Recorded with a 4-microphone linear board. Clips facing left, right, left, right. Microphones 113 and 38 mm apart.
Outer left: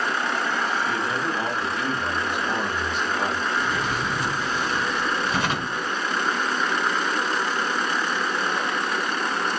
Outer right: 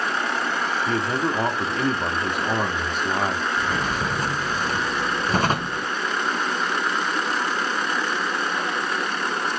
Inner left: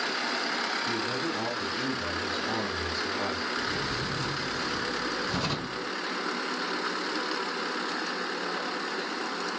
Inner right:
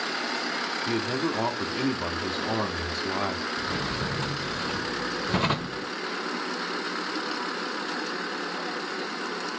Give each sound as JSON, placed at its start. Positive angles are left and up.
{"t": 0.9, "sound": "a man speaking", "side_deg": -45, "distance_m": 0.9}
{"t": 3.6, "sound": "a drawer", "side_deg": -40, "distance_m": 0.9}